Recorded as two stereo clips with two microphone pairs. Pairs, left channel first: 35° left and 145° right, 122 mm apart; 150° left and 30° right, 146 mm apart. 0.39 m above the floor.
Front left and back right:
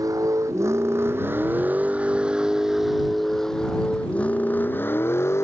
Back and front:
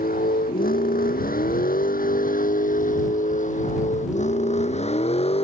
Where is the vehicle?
155° left; by 5.4 s 105° left.